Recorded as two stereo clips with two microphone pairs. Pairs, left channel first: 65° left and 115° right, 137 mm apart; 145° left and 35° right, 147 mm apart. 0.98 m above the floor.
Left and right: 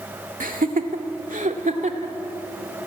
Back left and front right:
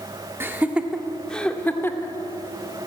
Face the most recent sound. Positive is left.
turn(degrees=-145)